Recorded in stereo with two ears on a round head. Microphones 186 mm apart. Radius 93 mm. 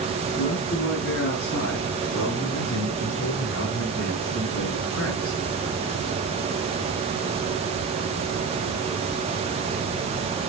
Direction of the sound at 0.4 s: 50° left (ahead or behind).